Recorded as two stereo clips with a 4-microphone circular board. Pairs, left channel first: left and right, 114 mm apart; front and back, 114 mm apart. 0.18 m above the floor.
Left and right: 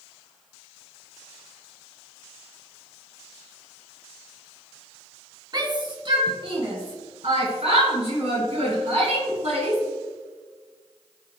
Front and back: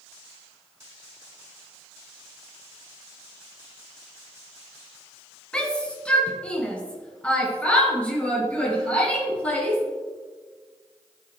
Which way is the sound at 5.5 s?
75° right.